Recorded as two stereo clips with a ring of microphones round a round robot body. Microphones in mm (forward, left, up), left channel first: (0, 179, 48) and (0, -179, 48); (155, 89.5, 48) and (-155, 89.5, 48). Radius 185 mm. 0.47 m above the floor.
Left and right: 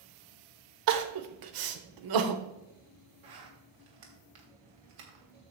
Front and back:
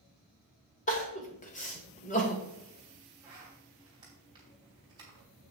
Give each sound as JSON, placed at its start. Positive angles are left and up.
{"t": 0.9, "sound": "crying", "azimuth_deg": -70, "distance_m": 1.2}
{"t": 3.2, "sound": "a zipper", "azimuth_deg": -105, "distance_m": 3.0}